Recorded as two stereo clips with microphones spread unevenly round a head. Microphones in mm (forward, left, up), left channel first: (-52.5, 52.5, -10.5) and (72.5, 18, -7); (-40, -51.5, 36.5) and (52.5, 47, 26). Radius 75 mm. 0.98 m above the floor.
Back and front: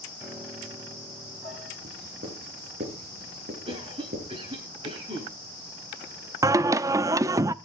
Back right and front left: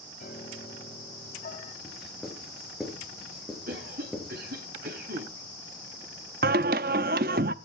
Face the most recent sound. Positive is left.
turn(degrees=40)